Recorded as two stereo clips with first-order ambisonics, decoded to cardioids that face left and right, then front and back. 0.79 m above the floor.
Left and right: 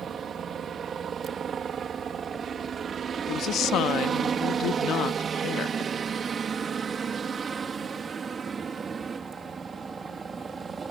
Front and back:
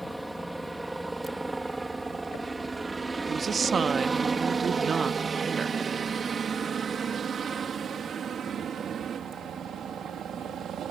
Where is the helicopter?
95° right; by 10.9 s 150° right.